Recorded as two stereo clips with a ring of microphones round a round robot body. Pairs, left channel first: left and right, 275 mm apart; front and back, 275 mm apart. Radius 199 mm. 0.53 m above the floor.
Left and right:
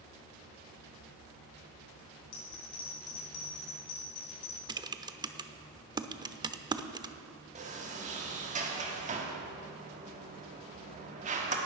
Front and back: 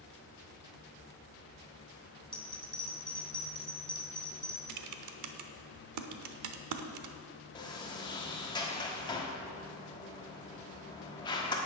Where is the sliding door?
60° right, 1.2 m.